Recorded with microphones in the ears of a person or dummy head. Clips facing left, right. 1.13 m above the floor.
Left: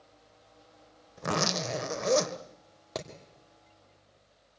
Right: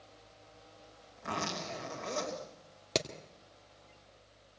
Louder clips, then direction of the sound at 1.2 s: Left 8 dB; 65° left (ahead or behind).